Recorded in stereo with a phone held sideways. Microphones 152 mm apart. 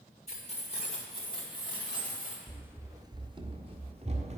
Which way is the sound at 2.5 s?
5° right (ahead or behind).